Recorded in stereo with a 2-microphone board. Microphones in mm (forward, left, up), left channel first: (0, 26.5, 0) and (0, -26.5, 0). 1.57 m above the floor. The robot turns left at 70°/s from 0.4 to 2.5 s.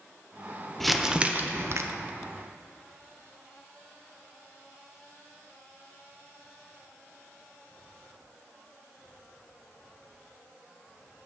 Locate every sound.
0.8 s crumpling: 5° left, 0.6 m; by 1.8 s 65° right, 0.6 m